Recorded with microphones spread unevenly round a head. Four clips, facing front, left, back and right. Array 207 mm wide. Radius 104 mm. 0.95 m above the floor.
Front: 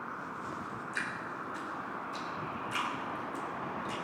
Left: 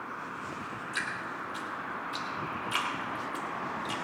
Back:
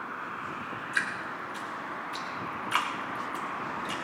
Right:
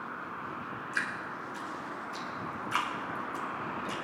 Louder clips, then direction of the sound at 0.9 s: Right 1 dB, back 7 dB; 170° right.